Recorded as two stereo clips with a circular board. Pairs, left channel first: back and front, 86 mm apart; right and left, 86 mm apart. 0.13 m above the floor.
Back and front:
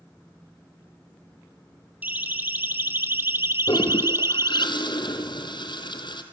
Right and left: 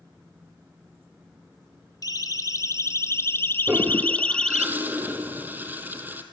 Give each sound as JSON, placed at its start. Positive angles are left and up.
{"t": 2.0, "sound": "a siren", "azimuth_deg": -65, "distance_m": 2.5}
{"t": 3.7, "sound": "a toilet flushing", "azimuth_deg": 160, "distance_m": 3.0}